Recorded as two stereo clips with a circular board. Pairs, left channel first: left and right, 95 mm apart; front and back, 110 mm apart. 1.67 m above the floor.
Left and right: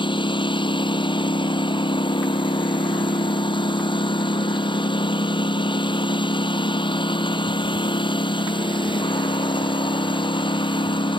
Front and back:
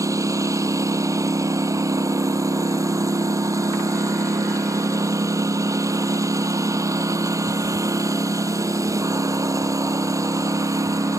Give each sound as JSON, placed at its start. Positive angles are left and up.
{"t": 0.0, "sound": "a lawn mower", "azimuth_deg": 120}